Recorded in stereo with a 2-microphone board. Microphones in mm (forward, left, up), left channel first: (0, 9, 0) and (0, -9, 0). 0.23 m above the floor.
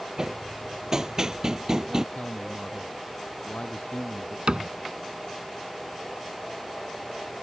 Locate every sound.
0.2 s hammering: 30° right (ahead or behind)
2.1 s a man speaking: 70° left (ahead or behind)
4.5 s a cupboard door: 60° right (ahead or behind)